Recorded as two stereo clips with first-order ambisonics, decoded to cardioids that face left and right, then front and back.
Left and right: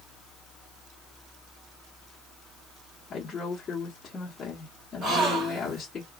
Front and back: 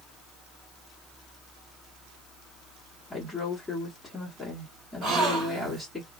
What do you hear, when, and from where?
3.1 s a woman speaking: 85° left, 1.2 m
5.0 s a gasp: 145° right, 1.9 m